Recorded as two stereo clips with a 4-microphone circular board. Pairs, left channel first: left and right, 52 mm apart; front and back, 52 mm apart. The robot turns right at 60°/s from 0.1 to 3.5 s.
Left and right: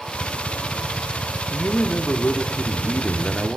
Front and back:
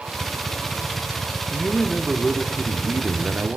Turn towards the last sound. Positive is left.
turn(degrees=180)